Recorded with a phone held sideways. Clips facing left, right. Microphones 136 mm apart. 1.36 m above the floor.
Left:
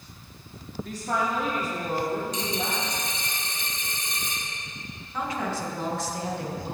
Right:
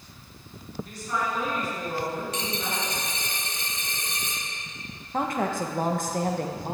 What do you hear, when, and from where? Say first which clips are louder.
0.8 s a woman speaking: left 3 dB; 85° left, 2.5 m; by 3.0 s 70° left (ahead or behind), 4 m
2.3 s a dropped coin: left 2 dB; 65° right (ahead or behind), 3 m
5.1 s a woman speaking: right 3 dB; 50° right (ahead or behind), 1.2 m